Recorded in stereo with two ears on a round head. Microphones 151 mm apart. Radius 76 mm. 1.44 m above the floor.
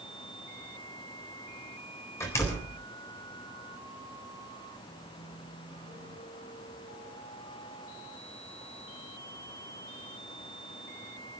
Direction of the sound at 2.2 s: 15° left (ahead or behind).